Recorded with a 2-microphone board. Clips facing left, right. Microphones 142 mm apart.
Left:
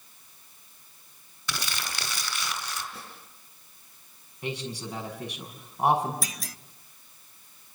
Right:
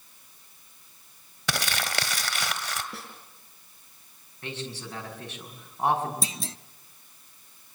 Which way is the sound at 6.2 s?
25° right (ahead or behind).